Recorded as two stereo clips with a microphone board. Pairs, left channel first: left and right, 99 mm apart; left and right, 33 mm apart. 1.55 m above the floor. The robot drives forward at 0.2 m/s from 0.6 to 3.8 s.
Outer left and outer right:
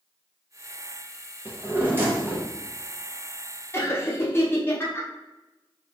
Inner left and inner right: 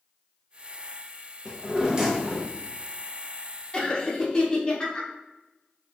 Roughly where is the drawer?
Right.